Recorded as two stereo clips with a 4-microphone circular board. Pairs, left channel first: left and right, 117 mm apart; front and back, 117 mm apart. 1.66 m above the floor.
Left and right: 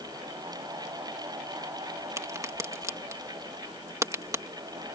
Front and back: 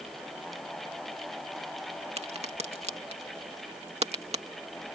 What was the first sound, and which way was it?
A crack, 155° right.